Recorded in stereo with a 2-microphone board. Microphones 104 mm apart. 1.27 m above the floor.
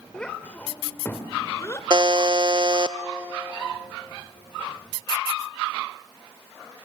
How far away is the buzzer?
About 0.6 m.